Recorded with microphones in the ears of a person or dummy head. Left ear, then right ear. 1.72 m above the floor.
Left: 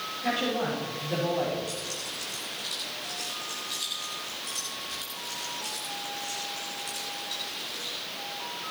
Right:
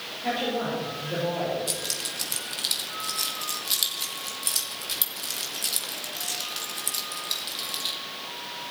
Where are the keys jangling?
55° right (ahead or behind), 2.5 m.